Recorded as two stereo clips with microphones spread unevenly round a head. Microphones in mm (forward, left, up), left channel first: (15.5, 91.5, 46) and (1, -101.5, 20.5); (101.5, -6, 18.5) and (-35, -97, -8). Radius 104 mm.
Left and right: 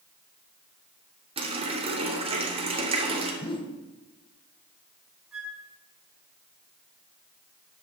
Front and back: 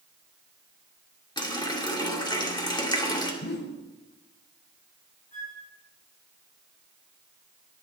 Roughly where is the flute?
Ahead.